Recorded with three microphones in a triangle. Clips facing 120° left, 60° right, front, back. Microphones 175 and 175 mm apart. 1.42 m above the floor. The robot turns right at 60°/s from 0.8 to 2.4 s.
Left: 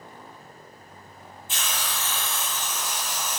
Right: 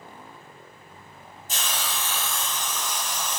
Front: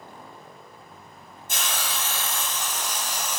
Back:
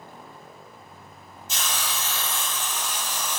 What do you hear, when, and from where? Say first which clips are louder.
1.5 s a hiss: right 1 dB, even; 20° right, 0.7 m; by 3.4 s 35° left, 0.7 m